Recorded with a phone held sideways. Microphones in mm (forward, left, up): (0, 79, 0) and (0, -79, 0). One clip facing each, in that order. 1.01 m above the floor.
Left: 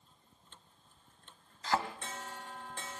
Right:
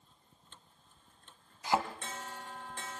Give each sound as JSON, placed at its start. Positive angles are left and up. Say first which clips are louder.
{"t": 1.6, "sound": "a thud", "louder": "right 2 dB", "side_deg": -15, "distance_m": 2.0}